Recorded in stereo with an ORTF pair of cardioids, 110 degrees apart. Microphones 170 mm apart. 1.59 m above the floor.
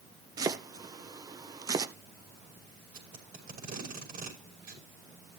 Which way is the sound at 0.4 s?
20° right.